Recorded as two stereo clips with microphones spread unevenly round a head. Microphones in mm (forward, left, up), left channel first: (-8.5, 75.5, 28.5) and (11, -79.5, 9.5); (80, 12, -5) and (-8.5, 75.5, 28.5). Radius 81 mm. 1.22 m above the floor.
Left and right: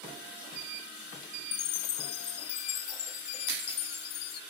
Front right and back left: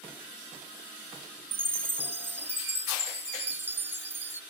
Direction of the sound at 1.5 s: 75° left.